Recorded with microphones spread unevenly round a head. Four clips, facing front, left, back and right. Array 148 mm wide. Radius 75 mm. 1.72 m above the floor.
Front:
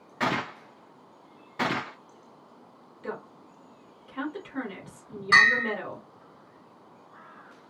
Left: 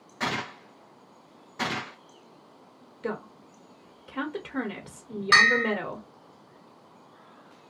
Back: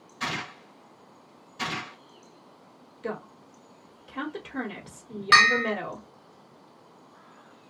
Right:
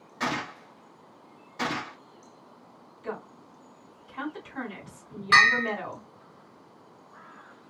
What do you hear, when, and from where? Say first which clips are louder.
0.2 s a gunshot: right 1 dB, front 6 dB; 5° left, 0.8 m
3.0 s a woman speaking: left 3 dB, back 2 dB; 110° left, 0.9 m
5.3 s a bell: even, back 1 dB; 155° left, 1.4 m